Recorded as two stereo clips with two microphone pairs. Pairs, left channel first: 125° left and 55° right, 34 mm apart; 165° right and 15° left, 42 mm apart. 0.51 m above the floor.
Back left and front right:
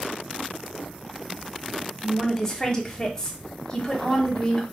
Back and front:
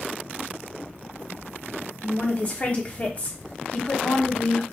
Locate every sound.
2.0 s a woman speaking: 175° right, 0.7 m